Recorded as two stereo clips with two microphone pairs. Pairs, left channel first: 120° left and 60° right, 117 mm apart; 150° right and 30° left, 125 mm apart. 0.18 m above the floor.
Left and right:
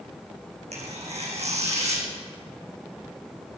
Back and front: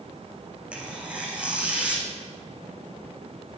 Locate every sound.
0.7 s tearing paper: 50° right, 3 m